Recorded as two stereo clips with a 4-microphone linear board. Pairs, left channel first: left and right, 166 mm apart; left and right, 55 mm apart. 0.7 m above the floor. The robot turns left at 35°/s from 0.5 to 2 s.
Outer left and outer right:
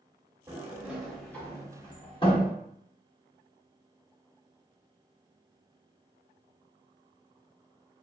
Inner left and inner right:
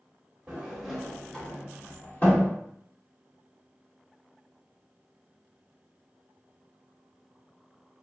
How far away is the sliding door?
About 0.9 m.